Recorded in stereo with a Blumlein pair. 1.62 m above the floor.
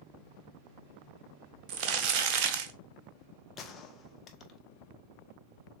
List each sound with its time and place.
1.7 s crumpling: 40° right, 0.8 m
3.6 s a gunshot: 25° left, 0.7 m